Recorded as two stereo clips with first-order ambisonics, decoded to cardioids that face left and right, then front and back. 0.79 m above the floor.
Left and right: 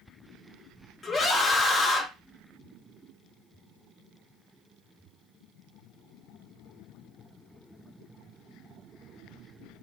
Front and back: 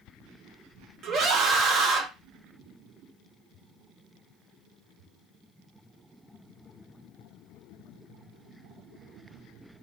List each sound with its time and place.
1.0 s a scream: 160° left, 0.6 m